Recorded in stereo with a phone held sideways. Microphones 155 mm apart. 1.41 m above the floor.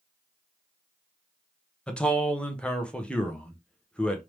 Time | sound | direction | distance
1.9 | a man speaking | 5° left (ahead or behind) | 0.9 m